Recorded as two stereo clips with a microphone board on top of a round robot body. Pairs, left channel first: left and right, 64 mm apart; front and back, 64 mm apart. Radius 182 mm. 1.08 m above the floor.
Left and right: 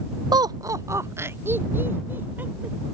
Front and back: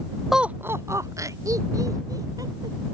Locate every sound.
0.3 s laughter: 90° right; by 2.9 s 150° right